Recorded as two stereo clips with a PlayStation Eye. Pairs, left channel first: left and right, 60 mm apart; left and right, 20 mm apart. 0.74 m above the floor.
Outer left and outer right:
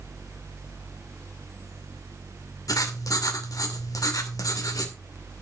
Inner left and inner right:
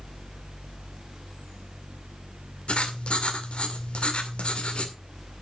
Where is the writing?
70° left (ahead or behind), 2.5 m.